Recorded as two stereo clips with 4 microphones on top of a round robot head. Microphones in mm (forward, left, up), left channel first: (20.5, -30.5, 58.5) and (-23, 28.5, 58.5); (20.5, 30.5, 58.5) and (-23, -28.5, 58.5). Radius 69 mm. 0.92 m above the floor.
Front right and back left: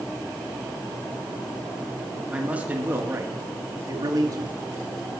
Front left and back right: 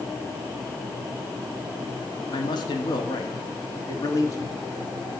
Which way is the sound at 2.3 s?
55° left.